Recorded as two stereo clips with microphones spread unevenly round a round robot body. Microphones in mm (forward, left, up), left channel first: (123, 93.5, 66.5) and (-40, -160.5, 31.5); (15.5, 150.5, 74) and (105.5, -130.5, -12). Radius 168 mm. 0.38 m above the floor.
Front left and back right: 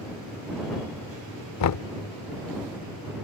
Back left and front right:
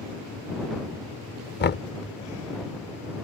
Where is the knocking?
45° left.